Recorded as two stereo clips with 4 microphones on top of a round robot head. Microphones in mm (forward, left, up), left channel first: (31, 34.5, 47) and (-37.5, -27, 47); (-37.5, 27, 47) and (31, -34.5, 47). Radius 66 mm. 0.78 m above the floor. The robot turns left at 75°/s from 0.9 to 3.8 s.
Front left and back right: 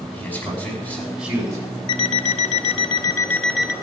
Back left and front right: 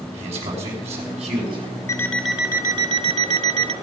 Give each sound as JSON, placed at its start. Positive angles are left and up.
{"t": 0.1, "sound": "a man speaking", "azimuth_deg": -30, "distance_m": 6.0}
{"t": 1.9, "sound": "an alarm clock", "azimuth_deg": 70, "distance_m": 1.2}